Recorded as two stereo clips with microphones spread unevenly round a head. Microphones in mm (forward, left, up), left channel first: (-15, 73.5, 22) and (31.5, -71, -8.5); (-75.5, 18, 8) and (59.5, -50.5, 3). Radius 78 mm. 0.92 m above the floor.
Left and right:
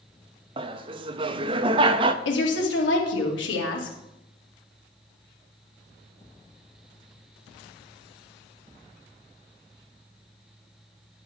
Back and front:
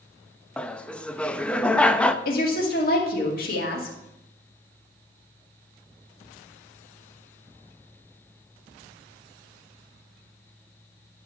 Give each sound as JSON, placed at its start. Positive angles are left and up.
{"t": 0.6, "sound": "laughter", "azimuth_deg": -125, "distance_m": 0.6}
{"t": 2.2, "sound": "a woman speaking", "azimuth_deg": 120, "distance_m": 2.0}